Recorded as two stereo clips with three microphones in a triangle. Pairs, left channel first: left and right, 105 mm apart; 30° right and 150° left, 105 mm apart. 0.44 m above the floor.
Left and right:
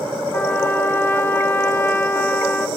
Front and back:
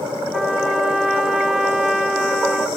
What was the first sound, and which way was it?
A trumpet, 75° left.